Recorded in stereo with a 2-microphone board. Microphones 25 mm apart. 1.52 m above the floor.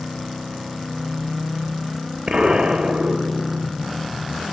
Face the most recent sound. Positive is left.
turn(degrees=-40)  # may be behind; listen again after turning